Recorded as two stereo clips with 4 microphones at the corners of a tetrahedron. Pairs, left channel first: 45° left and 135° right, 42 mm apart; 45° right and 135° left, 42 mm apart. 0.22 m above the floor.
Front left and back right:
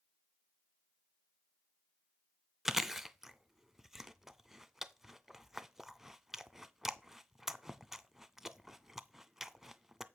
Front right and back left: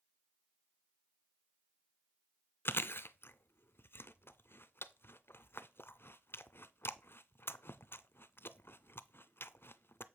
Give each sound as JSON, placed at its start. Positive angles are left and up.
{"t": 2.6, "sound": "chewing", "azimuth_deg": -55, "distance_m": 0.5}